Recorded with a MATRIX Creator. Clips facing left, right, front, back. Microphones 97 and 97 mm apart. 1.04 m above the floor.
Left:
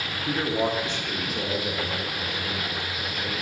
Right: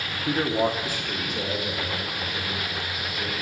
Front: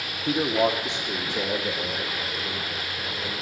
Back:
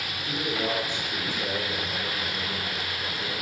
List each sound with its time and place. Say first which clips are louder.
0.3 s a man speaking: right 2 dB, front 7 dB; 20° right, 1.5 m; by 3.3 s 15° left, 4 m